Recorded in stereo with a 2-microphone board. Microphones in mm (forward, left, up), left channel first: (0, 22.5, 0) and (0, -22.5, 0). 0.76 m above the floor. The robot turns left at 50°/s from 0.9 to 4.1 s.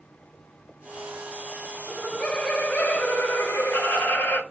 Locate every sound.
1.9 s laughter: straight behind, 0.8 m; by 4.4 s 70° left, 0.8 m